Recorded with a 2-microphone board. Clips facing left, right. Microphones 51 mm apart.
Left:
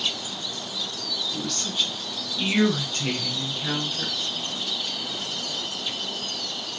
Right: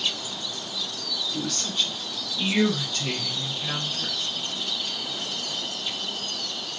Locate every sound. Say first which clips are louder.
1.3 s a woman speaking: right 1 dB; 5° right (ahead or behind), 1.4 m; by 4.2 s 55° left (ahead or behind), 1.9 m